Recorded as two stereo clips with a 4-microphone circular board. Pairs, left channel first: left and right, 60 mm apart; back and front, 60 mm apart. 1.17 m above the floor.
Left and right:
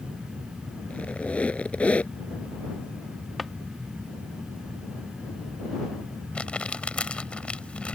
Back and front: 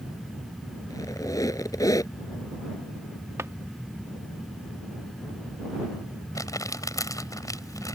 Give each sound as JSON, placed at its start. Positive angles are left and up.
{"t": 0.9, "sound": "a squeak", "azimuth_deg": 160}
{"t": 3.4, "sound": "a drawer", "azimuth_deg": 0}
{"t": 6.3, "sound": "crumpling", "azimuth_deg": 160}